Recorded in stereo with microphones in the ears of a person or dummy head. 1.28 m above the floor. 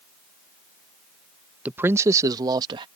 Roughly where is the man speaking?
Centre.